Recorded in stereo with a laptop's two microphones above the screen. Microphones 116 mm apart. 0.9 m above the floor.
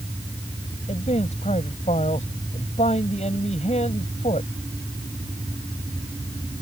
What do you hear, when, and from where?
0.9 s a man speaking: 80° left